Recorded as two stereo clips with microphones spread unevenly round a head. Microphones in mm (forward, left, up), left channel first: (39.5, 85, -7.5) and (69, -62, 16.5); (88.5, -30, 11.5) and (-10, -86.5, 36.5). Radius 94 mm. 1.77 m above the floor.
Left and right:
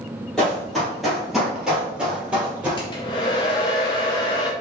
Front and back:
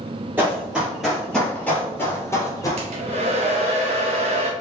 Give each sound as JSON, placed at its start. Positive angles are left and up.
{"t": 0.4, "sound": "running footsteps", "azimuth_deg": -160, "distance_m": 1.9}
{"t": 2.8, "sound": "a hair dryer", "azimuth_deg": 170, "distance_m": 0.5}